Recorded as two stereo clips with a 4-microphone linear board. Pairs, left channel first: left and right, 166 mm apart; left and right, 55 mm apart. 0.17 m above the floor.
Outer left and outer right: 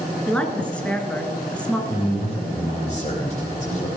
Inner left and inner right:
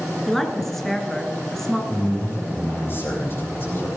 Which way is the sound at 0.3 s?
5° left (ahead or behind).